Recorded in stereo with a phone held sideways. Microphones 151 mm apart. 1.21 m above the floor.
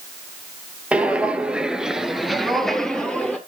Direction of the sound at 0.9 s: 5° right (ahead or behind).